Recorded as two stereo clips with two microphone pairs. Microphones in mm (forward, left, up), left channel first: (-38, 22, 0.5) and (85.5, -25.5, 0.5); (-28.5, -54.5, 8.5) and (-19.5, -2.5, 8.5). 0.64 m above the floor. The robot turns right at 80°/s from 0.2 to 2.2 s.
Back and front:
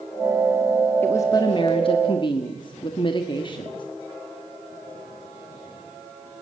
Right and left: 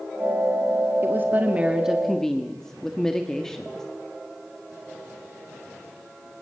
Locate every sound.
1.0 s a woman speaking: 90° left, 1.4 m; by 3.9 s 175° right, 1.4 m